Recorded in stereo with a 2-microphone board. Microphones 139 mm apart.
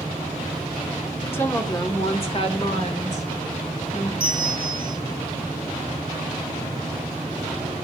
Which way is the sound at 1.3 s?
15° left (ahead or behind).